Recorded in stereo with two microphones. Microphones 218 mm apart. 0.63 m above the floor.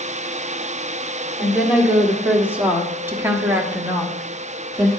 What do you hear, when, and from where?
1.4 s a woman speaking: centre (ahead or behind), 2 m; by 4.9 s 10° right (ahead or behind), 1.3 m